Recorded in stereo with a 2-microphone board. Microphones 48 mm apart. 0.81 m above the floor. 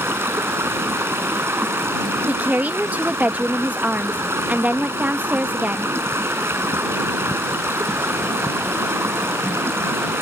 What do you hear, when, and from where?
0.0 s running water: 60° right (ahead or behind)
2.3 s a woman speaking: 35° right (ahead or behind)